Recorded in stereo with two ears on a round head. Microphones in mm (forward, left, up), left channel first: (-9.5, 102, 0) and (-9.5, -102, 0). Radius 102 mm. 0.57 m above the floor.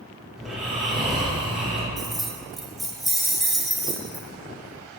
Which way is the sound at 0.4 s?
Centre (ahead or behind).